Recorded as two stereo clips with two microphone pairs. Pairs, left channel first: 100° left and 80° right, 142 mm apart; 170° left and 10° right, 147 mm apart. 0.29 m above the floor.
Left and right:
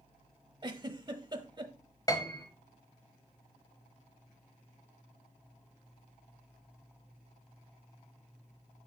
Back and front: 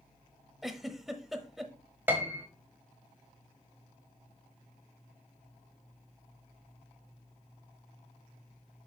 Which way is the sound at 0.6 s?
95° right.